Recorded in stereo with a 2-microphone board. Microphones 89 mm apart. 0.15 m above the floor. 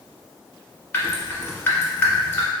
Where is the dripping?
25° left (ahead or behind), 0.8 m.